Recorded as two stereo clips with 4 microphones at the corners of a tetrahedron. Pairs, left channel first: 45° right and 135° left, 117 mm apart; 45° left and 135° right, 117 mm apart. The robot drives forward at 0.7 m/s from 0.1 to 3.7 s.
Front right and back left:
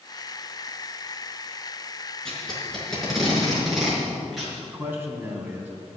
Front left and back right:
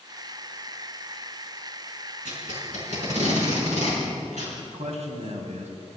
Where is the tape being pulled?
130° right, 5 m; by 4.6 s 135° right, 5.5 m.